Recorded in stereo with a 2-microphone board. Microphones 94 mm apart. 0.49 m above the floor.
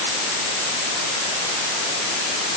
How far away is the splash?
No splash in this recording.